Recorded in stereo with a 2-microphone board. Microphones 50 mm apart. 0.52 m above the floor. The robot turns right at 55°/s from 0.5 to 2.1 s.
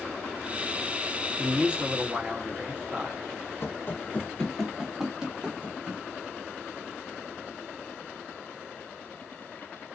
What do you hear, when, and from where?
1.4 s a man speaking: 20° right (ahead or behind), 0.8 m; by 3.2 s 30° right (ahead or behind), 0.8 m
3.6 s running footsteps: 45° left (ahead or behind), 0.7 m; by 6.0 s 25° right (ahead or behind), 1.3 m